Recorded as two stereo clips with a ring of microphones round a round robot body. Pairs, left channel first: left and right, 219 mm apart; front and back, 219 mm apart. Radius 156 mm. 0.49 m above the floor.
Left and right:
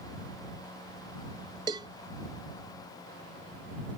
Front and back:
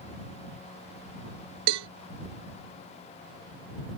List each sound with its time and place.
1.7 s a cowbell: 165° right